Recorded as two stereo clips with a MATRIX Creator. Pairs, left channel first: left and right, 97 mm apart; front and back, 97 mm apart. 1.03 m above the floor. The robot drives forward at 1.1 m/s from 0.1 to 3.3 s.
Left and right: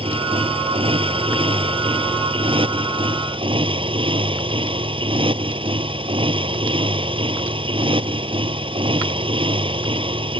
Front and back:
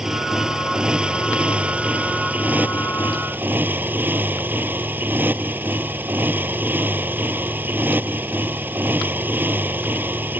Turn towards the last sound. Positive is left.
turn(degrees=-110)